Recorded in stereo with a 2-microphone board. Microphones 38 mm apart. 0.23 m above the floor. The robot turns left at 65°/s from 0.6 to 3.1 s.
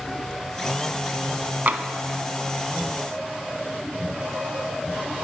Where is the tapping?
45° right (ahead or behind), 0.8 m; by 1.9 s 40° right (ahead or behind), 0.8 m.